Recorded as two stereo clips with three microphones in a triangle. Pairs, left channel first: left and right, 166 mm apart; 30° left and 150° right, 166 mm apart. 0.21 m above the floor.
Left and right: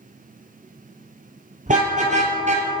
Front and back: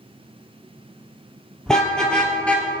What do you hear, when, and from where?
1.7 s a car horn: 55° right, 3 m; by 2.7 s 50° right, 2 m